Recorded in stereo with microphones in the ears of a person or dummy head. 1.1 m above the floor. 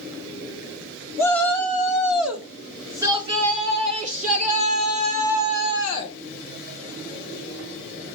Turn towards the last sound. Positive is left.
turn(degrees=-55)  # may be behind; listen again after turning